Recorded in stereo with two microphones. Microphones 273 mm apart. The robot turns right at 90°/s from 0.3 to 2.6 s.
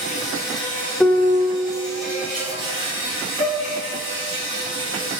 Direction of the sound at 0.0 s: 25° left.